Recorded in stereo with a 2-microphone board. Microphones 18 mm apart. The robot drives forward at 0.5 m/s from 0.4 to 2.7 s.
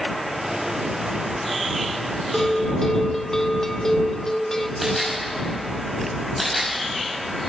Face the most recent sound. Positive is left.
turn(degrees=0)  # may be behind; listen again after turning